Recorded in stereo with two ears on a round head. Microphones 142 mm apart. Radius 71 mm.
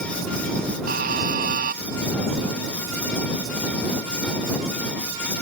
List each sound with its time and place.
0.9 s a buzzer: 65° right (ahead or behind)